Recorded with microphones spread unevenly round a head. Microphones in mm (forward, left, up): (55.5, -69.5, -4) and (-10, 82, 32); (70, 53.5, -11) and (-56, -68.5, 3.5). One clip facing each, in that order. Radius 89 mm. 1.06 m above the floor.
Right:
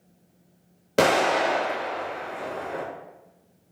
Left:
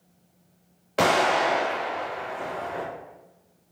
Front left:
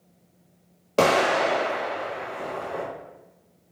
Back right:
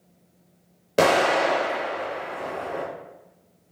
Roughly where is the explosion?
Ahead right.